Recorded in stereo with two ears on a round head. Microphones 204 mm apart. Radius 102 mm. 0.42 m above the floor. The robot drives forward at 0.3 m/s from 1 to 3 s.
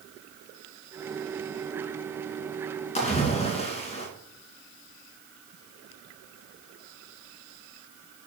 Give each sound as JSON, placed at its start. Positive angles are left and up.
{"t": 3.0, "sound": "a splash", "side_deg": 30, "distance_m": 2.0}